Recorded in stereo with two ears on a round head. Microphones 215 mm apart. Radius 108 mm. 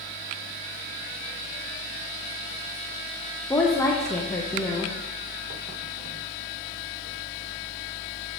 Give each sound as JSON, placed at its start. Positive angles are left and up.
{"t": 3.5, "sound": "a woman speaking", "side_deg": 10, "distance_m": 0.6}